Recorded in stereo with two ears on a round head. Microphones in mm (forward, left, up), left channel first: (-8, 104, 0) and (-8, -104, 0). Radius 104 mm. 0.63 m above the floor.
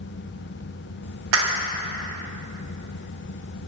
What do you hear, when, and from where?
1.3 s a clap: 60° right (ahead or behind), 0.8 m